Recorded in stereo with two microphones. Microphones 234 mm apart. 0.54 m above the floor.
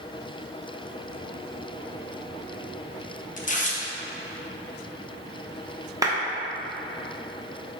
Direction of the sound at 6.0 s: 15° right (ahead or behind).